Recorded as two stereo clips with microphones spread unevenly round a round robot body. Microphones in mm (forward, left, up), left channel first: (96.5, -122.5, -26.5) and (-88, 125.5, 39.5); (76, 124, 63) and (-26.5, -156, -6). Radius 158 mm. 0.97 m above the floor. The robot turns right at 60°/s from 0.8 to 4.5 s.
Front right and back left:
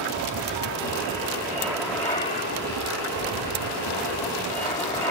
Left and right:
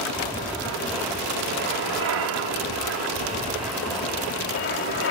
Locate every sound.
0.0 s an aircraft: 155° left; by 5.1 s 20° left